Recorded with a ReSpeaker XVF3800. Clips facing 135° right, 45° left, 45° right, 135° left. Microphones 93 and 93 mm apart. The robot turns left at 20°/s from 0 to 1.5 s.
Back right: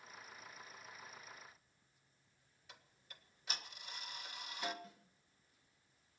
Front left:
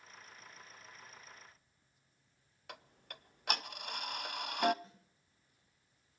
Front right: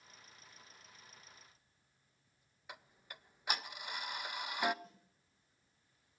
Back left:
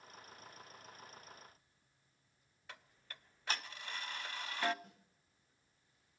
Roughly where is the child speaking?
I don't hear a child speaking.